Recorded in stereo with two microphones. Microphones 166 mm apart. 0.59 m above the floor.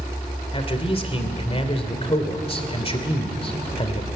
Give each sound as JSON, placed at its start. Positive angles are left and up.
{"t": 0.5, "sound": "a man speaking", "side_deg": 35, "distance_m": 2.5}